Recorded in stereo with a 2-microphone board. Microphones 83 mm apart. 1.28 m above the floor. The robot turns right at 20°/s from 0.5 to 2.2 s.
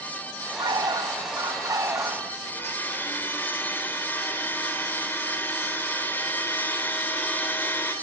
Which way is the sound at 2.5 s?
25° left (ahead or behind).